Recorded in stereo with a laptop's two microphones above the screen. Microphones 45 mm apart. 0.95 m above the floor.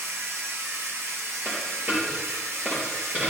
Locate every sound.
0.0 s a machine running: 75° right (ahead or behind), 0.8 m
1.4 s a dropped coin: 40° right (ahead or behind), 3 m